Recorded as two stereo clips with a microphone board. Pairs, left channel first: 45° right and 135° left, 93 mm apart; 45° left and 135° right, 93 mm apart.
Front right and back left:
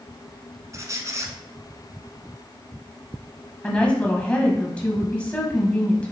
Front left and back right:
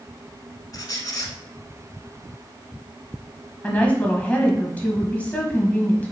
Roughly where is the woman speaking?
Ahead.